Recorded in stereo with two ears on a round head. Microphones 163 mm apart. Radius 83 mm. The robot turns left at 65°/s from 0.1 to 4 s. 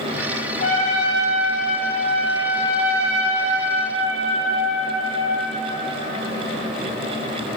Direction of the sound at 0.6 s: 140° left.